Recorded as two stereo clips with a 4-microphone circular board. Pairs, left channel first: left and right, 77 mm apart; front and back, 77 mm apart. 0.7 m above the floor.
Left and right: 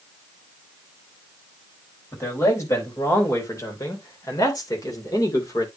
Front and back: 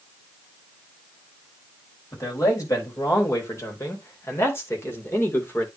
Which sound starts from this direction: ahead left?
A man speaking, at 2.1 s.